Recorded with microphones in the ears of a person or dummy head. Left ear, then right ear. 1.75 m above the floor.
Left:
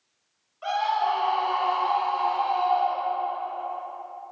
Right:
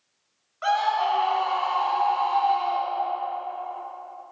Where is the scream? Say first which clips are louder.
Right 2 dB; 55° right (ahead or behind), 1.7 m; by 3.3 s 85° right, 5 m.